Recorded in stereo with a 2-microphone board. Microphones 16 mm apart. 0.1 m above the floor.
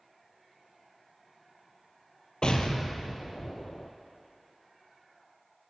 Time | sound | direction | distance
2.4 | an explosion | 65° left (ahead or behind) | 0.7 m